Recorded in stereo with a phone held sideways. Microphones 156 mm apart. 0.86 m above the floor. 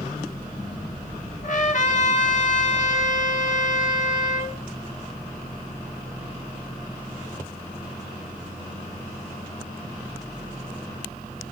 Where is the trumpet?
55° left (ahead or behind), 2.5 m.